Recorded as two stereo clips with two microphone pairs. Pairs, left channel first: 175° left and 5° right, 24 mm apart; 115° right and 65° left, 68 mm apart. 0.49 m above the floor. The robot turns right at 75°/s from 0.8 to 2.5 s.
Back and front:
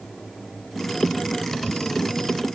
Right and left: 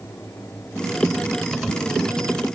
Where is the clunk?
No clunk in this recording.